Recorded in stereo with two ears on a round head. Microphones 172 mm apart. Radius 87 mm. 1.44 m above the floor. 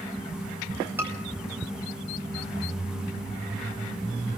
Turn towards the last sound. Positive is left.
turn(degrees=-15)  # may be behind; listen again after turning